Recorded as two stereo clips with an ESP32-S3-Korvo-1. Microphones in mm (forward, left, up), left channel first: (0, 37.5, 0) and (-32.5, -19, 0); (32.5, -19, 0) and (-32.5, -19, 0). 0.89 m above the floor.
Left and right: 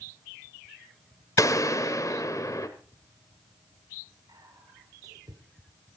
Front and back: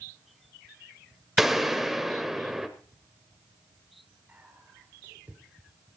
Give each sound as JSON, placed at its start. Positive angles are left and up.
{"t": 1.4, "sound": "a gunshot", "azimuth_deg": 95, "distance_m": 1.2}
{"t": 4.3, "sound": "whispering", "azimuth_deg": -115, "distance_m": 2.5}